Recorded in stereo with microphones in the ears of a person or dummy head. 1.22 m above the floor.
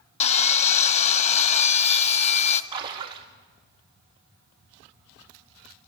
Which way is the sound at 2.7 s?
20° right (ahead or behind).